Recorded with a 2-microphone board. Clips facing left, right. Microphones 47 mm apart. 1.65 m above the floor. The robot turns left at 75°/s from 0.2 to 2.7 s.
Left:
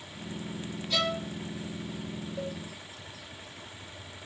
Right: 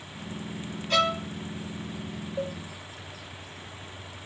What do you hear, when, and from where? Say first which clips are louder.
0.9 s a violin: right 6 dB; 50° right (ahead or behind), 1.8 m; by 1.2 s 30° right (ahead or behind), 1.8 m
2.4 s a cowbell: right 5 dB; 25° right (ahead or behind), 2 m; by 2.6 s 10° right (ahead or behind), 2 m